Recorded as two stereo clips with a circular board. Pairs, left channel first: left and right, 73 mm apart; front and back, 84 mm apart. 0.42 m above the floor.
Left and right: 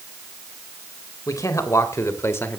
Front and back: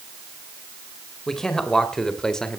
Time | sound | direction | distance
1.3 | a man speaking | 80° left | 2 m